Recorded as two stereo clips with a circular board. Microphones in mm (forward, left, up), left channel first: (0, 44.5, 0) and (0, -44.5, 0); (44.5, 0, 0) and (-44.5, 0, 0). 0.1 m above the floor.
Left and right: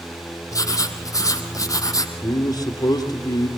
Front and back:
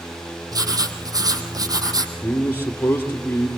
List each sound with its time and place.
0.5 s writing: 135° left, 2.5 m
2.2 s a man speaking: 65° left, 2.5 m